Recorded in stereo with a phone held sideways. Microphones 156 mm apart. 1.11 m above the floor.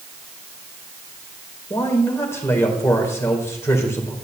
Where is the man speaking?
15° left (ahead or behind), 4.5 m.